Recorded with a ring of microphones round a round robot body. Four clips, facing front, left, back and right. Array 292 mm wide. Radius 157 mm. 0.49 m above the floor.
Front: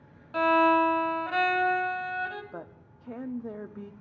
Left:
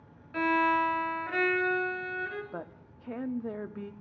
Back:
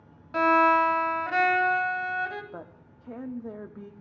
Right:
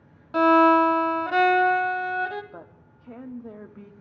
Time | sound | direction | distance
0.3 | a violin | 95° right | 0.6 m
2.5 | a woman speaking | 80° left | 0.8 m